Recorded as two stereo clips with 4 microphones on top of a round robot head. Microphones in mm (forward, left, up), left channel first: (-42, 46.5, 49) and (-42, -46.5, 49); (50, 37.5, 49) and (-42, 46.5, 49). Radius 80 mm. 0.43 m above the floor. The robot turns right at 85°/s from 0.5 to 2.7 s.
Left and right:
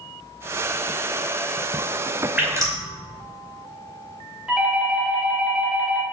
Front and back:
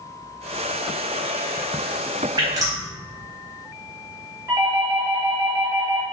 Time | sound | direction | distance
2.4 | dripping | 160° right | 2 m
4.5 | a doorbell | 160° right | 2 m